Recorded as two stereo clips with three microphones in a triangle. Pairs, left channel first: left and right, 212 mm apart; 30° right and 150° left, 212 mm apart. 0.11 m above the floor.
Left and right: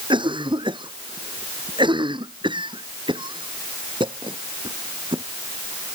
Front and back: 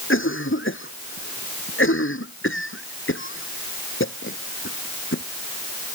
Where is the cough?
25° right.